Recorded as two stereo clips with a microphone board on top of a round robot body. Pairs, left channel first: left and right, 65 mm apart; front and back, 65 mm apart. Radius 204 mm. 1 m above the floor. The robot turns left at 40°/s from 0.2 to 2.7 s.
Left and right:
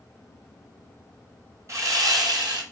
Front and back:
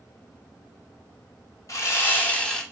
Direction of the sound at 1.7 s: 45° right.